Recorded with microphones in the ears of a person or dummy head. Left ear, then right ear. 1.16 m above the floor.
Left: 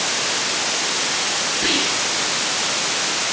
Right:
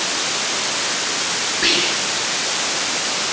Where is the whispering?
85° right, 8.5 m.